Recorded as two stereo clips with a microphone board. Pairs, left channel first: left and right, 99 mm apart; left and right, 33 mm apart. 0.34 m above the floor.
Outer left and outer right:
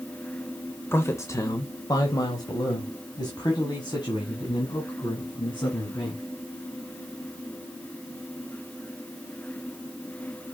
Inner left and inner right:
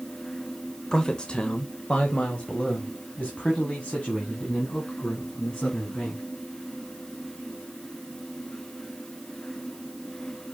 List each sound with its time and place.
0.9 s a man speaking: 25° left (ahead or behind), 0.9 m; by 6.2 s 45° left (ahead or behind), 3.5 m